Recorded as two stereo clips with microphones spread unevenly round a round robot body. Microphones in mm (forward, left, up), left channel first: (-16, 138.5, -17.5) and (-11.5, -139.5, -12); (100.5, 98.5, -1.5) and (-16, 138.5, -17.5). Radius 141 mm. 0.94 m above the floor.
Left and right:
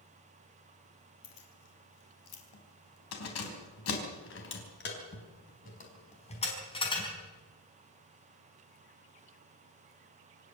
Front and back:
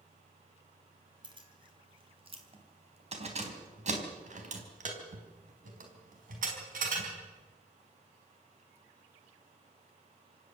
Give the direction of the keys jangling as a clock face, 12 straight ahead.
8 o'clock.